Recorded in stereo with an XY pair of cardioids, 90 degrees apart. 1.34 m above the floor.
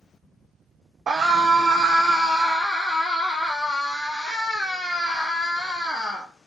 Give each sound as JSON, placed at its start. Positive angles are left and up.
{"t": 1.1, "sound": "a scream", "azimuth_deg": -55, "distance_m": 0.6}